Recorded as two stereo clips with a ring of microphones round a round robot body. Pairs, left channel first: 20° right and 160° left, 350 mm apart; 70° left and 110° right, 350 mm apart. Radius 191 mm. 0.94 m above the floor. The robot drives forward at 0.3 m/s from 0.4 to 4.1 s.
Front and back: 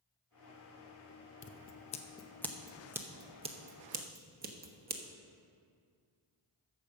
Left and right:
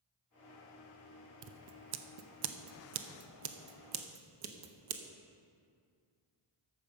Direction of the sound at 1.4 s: 80° right.